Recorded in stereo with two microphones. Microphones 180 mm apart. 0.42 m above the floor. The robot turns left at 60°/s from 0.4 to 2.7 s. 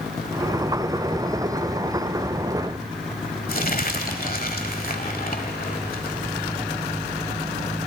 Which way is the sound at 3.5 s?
55° left (ahead or behind).